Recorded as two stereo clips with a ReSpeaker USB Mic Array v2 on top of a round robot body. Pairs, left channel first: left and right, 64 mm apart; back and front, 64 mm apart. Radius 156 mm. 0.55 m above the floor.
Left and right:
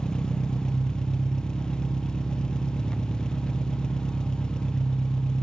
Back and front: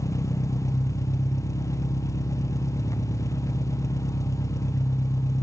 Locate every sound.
0.0 s an engine running: 165° left, 0.9 m